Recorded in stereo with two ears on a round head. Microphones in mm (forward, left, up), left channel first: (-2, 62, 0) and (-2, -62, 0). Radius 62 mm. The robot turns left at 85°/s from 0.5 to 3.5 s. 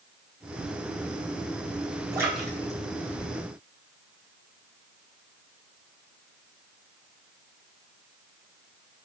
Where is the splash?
25° right (ahead or behind), 5 m; by 4.2 s 85° left, 5 m.